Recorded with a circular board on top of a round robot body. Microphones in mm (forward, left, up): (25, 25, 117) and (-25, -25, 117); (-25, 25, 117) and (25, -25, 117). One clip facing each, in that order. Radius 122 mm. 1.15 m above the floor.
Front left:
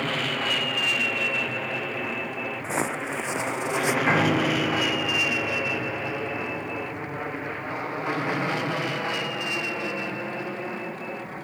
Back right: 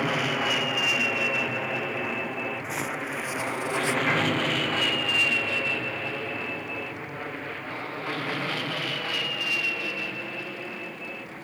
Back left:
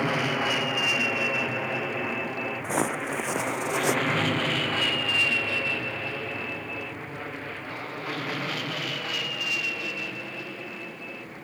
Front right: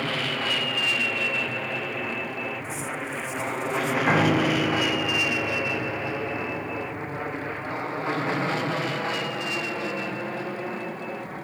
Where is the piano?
15° right.